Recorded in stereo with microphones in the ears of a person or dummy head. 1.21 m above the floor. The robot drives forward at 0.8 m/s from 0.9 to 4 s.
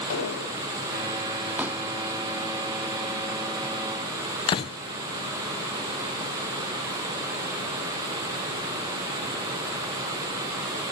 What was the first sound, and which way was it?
An explosion, 80° left.